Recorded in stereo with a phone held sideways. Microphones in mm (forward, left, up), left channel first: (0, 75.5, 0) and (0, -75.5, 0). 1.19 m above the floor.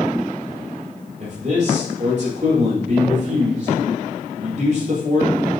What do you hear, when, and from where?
1.2 s a man speaking: 50° right (ahead or behind), 4 m